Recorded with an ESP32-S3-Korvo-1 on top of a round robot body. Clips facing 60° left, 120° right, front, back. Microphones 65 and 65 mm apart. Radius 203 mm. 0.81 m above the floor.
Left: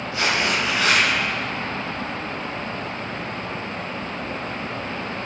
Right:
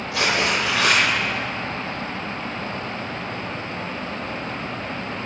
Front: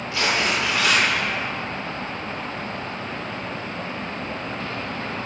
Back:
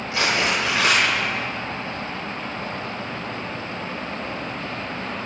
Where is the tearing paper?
115° right, 0.9 m.